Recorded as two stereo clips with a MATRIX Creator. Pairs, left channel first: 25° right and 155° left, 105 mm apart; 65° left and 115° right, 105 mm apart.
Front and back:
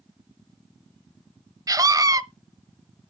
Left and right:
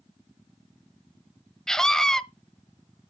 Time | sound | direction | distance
1.7 | a scream | 150° left | 1.0 m